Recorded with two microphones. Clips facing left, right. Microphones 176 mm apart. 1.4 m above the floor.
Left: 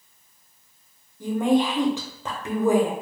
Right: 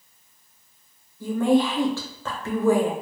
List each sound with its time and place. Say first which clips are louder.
1.2 s a woman speaking: right 1 dB; 15° left (ahead or behind), 0.8 m